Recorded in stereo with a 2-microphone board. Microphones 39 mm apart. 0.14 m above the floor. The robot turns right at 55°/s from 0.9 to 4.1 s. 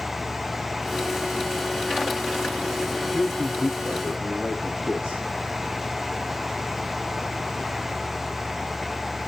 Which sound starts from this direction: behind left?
A man speaking, at 3.1 s.